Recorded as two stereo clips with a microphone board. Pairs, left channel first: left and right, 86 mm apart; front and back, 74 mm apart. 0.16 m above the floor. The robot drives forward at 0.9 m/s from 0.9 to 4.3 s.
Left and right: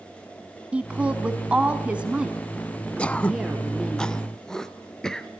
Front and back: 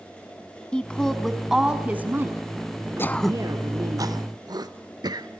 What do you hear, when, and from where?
0.7 s a woman speaking: 50° right, 1.6 m; by 4.0 s 170° right, 3 m
3.0 s throat clearing: 20° left, 0.5 m; by 5.3 s 175° left, 1.0 m